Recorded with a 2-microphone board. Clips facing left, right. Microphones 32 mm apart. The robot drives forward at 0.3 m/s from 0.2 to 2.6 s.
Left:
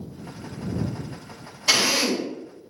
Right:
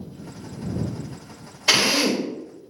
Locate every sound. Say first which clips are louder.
1.7 s a drill: right 2 dB; 30° right (ahead or behind), 0.6 m; by 2.3 s 25° right (ahead or behind), 0.7 m